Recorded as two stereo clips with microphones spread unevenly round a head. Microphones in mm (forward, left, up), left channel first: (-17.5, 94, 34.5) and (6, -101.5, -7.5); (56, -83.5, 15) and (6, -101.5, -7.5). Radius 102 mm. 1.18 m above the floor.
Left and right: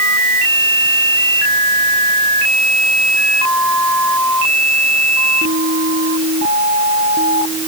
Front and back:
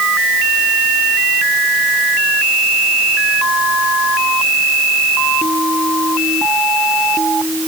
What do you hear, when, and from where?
Only background noise.